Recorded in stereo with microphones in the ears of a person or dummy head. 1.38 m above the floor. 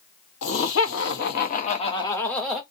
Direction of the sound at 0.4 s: 75° left (ahead or behind).